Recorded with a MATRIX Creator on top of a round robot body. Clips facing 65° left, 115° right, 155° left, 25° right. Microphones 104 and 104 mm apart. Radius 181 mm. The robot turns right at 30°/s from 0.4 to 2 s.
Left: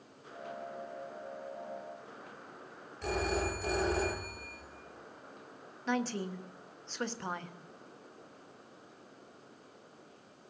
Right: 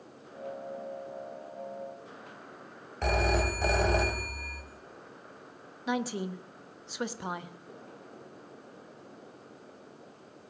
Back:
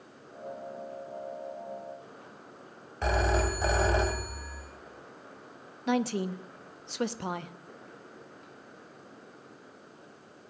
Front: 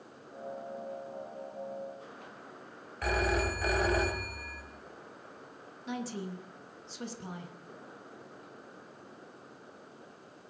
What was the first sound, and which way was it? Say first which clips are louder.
A phone ringing: right 5 dB, back 3 dB; 140° right.